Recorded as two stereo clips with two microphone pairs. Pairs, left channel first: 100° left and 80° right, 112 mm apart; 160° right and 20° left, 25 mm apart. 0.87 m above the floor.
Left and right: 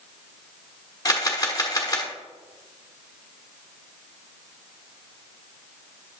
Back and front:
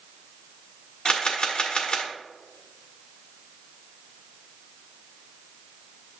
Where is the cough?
No cough in this recording.